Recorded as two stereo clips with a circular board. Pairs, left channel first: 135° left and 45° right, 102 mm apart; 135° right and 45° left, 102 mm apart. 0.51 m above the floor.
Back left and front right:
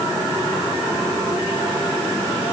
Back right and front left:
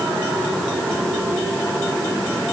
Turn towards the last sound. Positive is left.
No sound to turn to.